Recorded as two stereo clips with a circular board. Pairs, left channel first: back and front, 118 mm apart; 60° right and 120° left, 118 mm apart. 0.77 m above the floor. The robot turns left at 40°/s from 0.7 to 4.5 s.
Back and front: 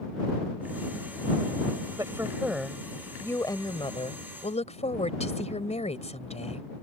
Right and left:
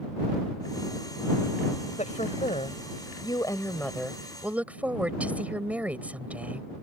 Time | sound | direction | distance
2.0 | a woman speaking | 60° right | ?